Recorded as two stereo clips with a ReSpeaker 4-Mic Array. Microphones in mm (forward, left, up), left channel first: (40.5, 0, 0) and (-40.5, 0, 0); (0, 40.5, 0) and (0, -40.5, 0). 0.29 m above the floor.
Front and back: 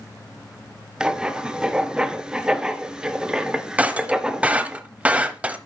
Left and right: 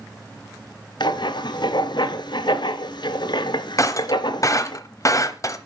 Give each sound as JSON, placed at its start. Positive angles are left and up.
{"t": 1.0, "sound": "writing", "azimuth_deg": 100, "distance_m": 0.6}
{"t": 3.8, "sound": "breaking glass", "azimuth_deg": 115, "distance_m": 0.8}